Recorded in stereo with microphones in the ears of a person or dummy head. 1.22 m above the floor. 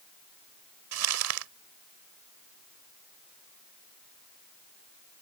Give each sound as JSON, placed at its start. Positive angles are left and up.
{"t": 0.9, "sound": "crumpling", "side_deg": -85}